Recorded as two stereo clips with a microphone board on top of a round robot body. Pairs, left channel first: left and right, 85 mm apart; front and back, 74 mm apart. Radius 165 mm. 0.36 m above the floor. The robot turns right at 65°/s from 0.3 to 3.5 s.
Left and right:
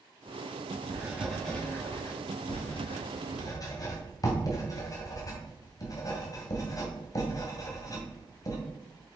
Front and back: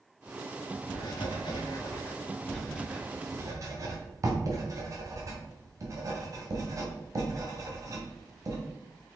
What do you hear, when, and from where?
0.9 s writing: 30° right, 2.5 m; by 8.6 s 135° left, 2.5 m